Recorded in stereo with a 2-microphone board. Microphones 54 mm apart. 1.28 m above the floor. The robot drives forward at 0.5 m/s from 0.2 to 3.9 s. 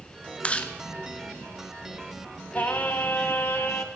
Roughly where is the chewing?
Left.